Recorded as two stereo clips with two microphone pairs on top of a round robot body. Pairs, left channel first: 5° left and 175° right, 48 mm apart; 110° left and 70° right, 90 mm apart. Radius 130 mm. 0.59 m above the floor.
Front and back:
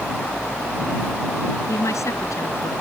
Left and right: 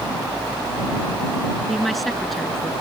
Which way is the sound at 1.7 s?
20° left.